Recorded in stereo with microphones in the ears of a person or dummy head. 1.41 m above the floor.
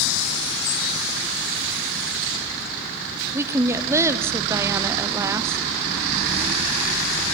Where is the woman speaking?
15° right (ahead or behind), 0.6 m.